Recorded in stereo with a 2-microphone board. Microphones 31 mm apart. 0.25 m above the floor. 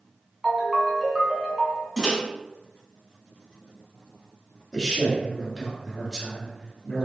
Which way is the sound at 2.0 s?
15° right (ahead or behind).